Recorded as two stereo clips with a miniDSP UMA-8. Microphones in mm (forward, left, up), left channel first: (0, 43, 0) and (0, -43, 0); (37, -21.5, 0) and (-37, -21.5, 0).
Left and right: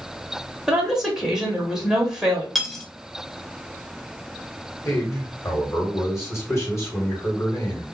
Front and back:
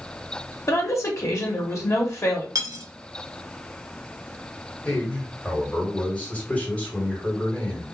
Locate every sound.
0.7 s a woman speaking: 10° right, 1.4 m
2.5 s cutlery clinking: straight behind, 0.6 m
4.8 s a man speaking: 60° left, 1.7 m